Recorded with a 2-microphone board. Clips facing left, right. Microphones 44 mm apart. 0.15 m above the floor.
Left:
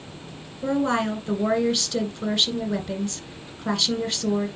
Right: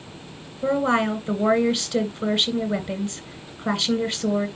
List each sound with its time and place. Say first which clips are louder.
0.6 s a woman speaking: right 2 dB; 15° right (ahead or behind), 1.9 m